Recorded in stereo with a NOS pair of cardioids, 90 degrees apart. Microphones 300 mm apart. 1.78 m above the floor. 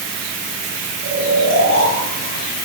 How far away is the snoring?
About 6.5 m.